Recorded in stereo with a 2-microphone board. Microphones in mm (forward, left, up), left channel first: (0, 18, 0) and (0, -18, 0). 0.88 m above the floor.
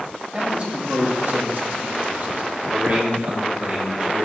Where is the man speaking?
30° right (ahead or behind), 2 m; by 4.2 s 35° right (ahead or behind), 3 m.